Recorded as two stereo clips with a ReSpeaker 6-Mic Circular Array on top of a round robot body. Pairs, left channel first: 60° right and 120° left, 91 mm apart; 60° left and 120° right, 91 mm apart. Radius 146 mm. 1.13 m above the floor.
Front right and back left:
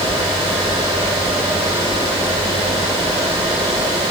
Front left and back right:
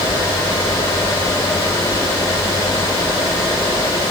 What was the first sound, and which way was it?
Only background noise.